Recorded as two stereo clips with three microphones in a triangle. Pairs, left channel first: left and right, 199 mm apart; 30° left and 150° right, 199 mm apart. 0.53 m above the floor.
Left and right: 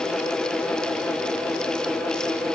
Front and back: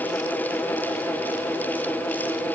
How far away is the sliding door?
I don't hear a sliding door.